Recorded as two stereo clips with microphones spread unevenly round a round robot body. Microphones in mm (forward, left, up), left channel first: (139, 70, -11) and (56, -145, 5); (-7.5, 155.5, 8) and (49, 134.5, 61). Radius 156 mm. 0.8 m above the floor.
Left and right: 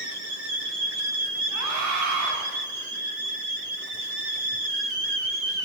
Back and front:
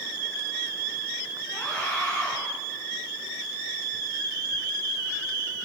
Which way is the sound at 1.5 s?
120° right.